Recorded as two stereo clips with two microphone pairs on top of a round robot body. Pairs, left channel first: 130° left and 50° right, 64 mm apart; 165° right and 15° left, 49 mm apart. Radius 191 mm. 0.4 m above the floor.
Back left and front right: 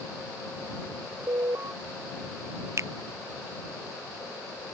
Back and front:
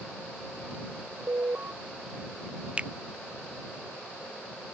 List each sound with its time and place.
1.3 s an alarm: 20° right
2.8 s a finger snap: 30° right